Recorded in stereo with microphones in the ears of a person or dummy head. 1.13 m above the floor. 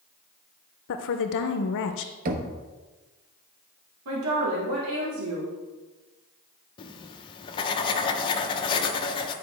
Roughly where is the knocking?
Right.